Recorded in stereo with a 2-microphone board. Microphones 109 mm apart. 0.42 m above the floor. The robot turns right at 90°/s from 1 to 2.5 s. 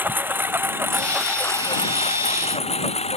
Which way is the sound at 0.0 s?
20° right (ahead or behind).